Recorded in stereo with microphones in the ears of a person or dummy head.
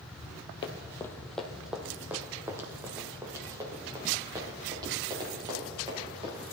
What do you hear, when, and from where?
0.6 s running footsteps: 25° left (ahead or behind), 1.2 m; by 6.4 s 25° right (ahead or behind), 7 m